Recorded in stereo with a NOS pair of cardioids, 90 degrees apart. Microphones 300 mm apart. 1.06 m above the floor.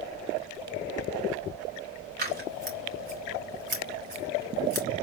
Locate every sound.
2.2 s scissors: 35° right, 3 m